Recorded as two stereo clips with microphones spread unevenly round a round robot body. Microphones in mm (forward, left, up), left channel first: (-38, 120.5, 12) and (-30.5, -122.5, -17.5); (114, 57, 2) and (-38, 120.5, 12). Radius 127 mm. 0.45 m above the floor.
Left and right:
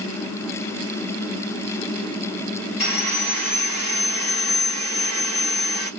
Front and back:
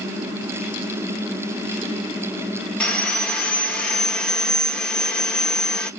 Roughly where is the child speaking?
No child speaking in this recording.